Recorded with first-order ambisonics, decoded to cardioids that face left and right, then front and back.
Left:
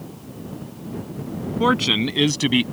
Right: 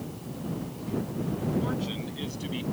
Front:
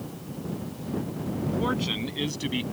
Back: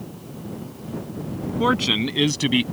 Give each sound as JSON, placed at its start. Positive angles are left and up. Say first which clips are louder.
{"t": 1.6, "sound": "a man speaking", "louder": "left 15 dB, back 11 dB", "azimuth_deg": 120}